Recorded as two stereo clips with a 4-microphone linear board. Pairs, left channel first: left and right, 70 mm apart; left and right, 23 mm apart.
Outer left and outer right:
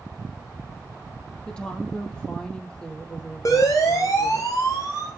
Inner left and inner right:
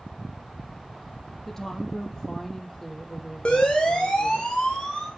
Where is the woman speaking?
15° left (ahead or behind), 4.5 m.